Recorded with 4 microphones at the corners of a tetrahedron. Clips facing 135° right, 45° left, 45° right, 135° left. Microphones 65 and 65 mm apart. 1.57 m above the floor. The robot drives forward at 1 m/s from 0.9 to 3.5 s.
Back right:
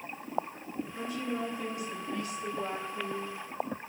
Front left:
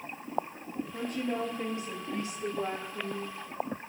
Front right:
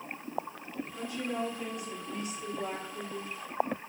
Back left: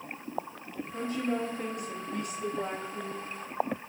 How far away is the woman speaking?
About 3 m.